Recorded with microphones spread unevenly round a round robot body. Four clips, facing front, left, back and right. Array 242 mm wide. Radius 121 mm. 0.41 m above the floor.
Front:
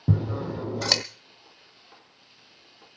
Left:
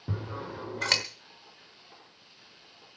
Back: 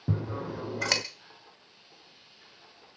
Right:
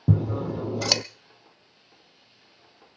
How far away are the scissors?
About 0.6 m.